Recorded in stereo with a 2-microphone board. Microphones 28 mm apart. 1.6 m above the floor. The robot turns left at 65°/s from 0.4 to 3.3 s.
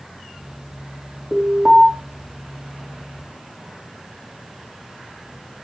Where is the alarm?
20° left, 3.5 m; by 1.9 s 20° right, 3.5 m.